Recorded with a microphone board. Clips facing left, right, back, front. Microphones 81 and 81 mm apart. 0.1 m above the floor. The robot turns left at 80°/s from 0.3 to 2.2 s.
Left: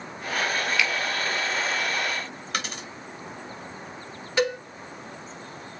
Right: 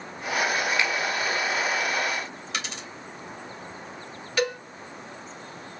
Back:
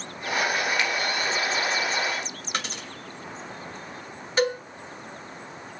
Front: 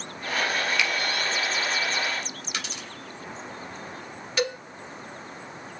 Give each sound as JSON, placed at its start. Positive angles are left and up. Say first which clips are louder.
{"t": 0.8, "sound": "a finger snap", "louder": "even, even", "azimuth_deg": -145, "distance_m": 1.8}
{"t": 2.5, "sound": "a dropped coin", "louder": "left 3 dB, back 5 dB", "azimuth_deg": 130, "distance_m": 3.0}
{"t": 4.4, "sound": "a cowbell", "louder": "left 2 dB, back 4 dB", "azimuth_deg": 145, "distance_m": 2.0}